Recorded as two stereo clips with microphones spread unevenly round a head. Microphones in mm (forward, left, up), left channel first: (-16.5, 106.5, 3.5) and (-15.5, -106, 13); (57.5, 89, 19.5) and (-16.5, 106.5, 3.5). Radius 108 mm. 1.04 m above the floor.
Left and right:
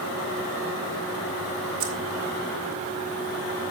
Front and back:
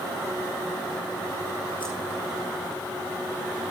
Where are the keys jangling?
75° right, 2.5 m.